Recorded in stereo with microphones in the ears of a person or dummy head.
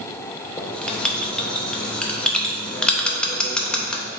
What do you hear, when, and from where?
0.6 s writing: 10° left (ahead or behind), 0.7 m